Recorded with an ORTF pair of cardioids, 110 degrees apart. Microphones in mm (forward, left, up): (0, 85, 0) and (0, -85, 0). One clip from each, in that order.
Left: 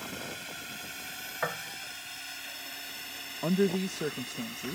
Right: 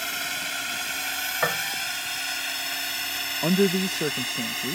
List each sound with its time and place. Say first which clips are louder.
0.0 s a drone: right 11 dB; 65° right
1.4 s a piano: right 7 dB; 40° right
3.4 s a man speaking: right 5 dB; 30° right